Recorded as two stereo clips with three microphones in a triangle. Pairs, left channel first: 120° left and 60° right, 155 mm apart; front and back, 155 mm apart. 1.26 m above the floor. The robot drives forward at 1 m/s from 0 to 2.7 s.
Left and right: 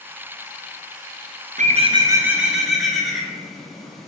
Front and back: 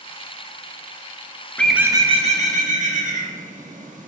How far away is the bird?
About 0.6 m.